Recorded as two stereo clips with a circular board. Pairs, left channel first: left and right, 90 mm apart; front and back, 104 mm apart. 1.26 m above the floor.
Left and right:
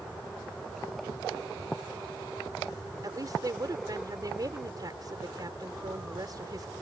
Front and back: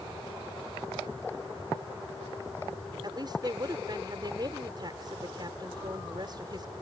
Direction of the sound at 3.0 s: 135° right.